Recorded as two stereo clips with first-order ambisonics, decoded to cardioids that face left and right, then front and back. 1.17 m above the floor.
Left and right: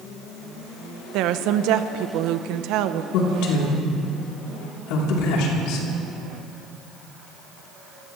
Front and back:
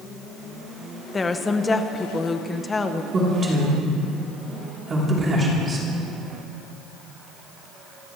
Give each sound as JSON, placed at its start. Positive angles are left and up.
{"t": 1.1, "sound": "a woman speaking", "azimuth_deg": -75, "distance_m": 0.8}
{"t": 3.1, "sound": "a man speaking", "azimuth_deg": 110, "distance_m": 3.5}